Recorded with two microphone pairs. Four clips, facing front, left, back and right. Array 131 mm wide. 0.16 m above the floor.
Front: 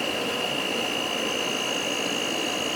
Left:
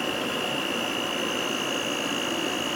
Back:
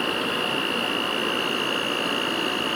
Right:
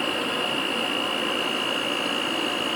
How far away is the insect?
About 1.8 m.